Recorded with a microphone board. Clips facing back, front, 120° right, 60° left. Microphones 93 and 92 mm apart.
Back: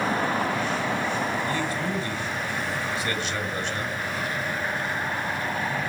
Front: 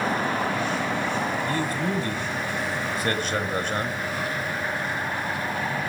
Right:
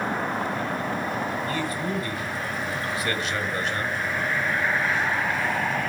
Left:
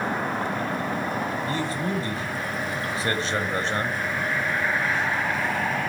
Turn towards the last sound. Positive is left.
turn(degrees=15)